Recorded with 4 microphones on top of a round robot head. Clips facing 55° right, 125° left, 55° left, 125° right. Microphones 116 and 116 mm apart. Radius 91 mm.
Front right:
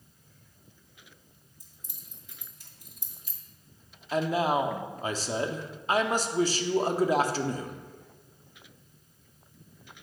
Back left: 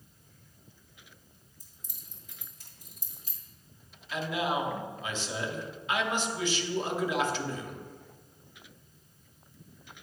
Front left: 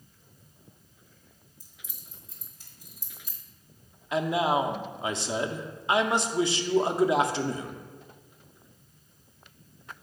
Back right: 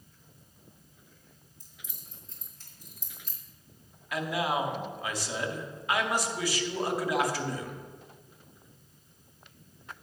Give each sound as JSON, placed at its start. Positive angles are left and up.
{"t": 1.6, "sound": "keys jangling", "azimuth_deg": 130, "distance_m": 2.0}
{"t": 4.1, "sound": "a man speaking", "azimuth_deg": -10, "distance_m": 0.6}